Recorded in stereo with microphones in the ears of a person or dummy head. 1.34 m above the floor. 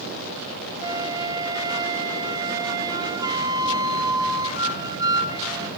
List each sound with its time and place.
0.8 s a flute: 20° right (ahead or behind), 0.5 m